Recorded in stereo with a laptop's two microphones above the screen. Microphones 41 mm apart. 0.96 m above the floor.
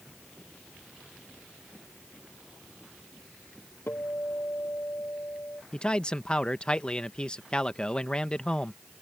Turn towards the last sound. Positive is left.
turn(degrees=20)  # may be behind; listen again after turning